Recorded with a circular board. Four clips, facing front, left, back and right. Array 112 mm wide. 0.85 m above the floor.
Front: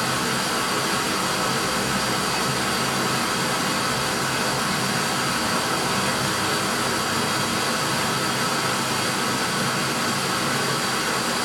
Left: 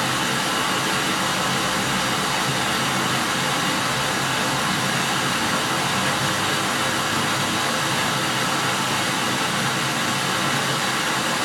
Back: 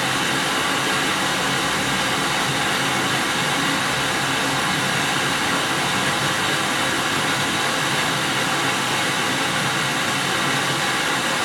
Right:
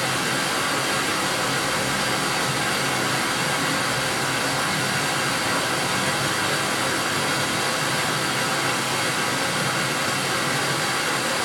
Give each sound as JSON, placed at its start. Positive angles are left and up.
{"t": 0.0, "sound": "running water", "azimuth_deg": 150, "distance_m": 0.9}